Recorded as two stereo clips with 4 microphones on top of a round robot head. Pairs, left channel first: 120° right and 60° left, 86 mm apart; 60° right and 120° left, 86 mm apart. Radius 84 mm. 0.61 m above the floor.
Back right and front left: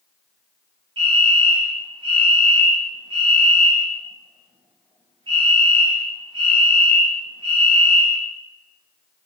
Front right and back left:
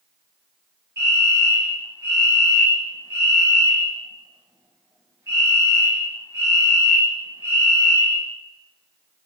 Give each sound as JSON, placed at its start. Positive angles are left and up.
{"t": 1.0, "sound": "a fire alarm", "azimuth_deg": 65, "distance_m": 6.5}